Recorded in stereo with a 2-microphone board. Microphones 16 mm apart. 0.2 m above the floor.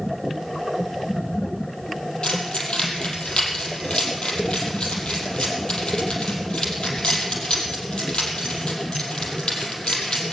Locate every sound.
2.2 s keys jangling: 75° left (ahead or behind), 4.5 m